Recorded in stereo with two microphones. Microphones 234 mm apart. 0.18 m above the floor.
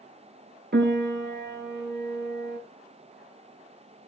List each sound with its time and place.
0.7 s a piano: 45° right (ahead or behind), 0.6 m